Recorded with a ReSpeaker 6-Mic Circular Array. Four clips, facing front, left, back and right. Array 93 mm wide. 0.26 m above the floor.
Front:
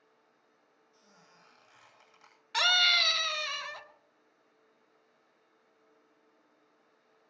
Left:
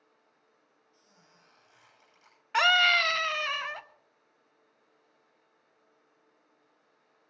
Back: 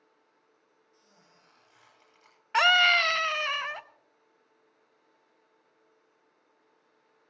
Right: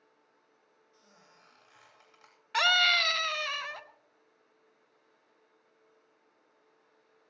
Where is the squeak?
55° right, 9.5 m.